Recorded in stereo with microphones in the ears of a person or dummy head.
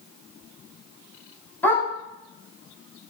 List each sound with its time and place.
1.6 s a dog barking: 10° left (ahead or behind), 6 m